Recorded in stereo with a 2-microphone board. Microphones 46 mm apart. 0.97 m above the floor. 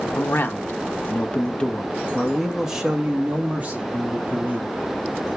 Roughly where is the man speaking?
Left.